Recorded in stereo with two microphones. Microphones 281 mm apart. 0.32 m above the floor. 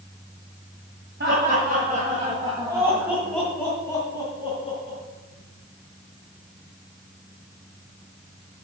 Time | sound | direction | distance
1.2 | laughter | 40° right (ahead or behind) | 2.5 m